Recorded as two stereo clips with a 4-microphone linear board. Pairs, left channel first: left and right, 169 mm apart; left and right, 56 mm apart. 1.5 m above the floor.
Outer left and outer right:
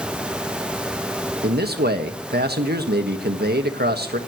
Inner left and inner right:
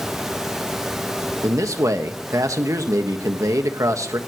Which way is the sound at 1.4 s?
75° right (ahead or behind).